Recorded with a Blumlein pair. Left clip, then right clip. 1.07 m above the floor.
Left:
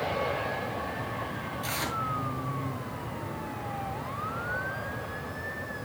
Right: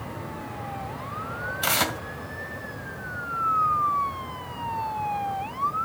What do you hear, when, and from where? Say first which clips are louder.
1.6 s tearing paper: right 8 dB; 55° right, 2 m